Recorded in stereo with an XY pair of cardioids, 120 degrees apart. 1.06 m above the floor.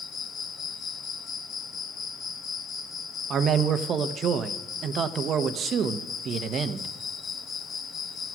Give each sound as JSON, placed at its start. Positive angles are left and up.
{"t": 0.0, "sound": "an insect", "azimuth_deg": 50, "distance_m": 1.0}
{"t": 3.3, "sound": "a man speaking", "azimuth_deg": -50, "distance_m": 0.8}